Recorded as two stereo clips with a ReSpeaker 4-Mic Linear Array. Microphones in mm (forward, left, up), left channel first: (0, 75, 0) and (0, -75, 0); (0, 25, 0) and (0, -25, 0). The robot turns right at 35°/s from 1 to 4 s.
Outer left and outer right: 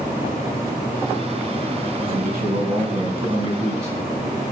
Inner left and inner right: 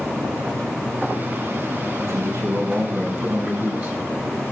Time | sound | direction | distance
2.1 | a man speaking | 80° right | 3.5 m